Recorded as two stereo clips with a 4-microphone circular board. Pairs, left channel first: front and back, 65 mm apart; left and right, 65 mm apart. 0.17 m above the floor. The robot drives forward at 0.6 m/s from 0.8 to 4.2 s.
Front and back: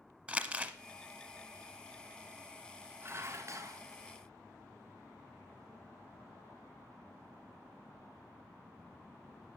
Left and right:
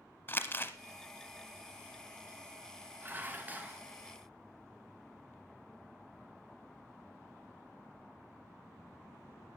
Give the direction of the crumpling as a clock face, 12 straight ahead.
8 o'clock.